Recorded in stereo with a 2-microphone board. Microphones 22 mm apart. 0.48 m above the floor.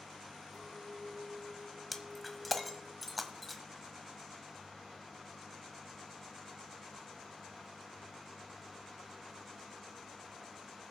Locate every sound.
0.5 s a clink: 10° left (ahead or behind), 4.5 m
1.9 s breaking glass: centre (ahead or behind), 1.2 m